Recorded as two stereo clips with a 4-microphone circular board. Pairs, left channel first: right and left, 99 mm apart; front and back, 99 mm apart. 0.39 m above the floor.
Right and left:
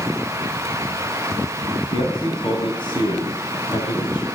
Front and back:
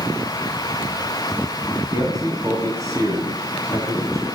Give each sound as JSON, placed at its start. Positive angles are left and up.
{"t": 1.9, "sound": "a man speaking", "azimuth_deg": -125, "distance_m": 3.0}